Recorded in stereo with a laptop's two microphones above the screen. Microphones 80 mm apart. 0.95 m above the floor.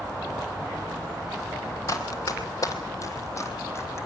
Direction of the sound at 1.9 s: 45° left (ahead or behind).